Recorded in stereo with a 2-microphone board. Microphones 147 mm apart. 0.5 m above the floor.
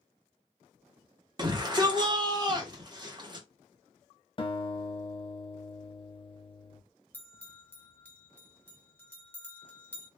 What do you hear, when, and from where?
1.4 s a shout: 30° right (ahead or behind), 1.1 m
4.4 s a guitar: 35° left (ahead or behind), 0.6 m
7.1 s a bell: 10° left (ahead or behind), 0.9 m